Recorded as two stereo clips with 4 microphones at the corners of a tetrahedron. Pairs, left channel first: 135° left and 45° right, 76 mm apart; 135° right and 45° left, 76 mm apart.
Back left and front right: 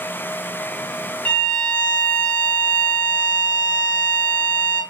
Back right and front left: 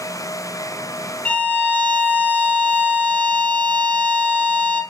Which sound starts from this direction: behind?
A violin, at 1.2 s.